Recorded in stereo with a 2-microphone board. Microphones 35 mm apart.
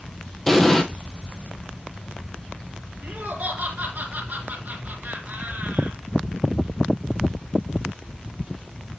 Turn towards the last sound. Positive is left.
turn(degrees=-45)  # may be behind; listen again after turning